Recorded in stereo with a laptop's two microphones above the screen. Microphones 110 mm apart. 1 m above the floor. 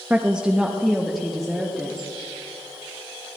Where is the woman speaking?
15° right (ahead or behind), 0.6 m; by 2.1 s 5° left (ahead or behind), 1.6 m.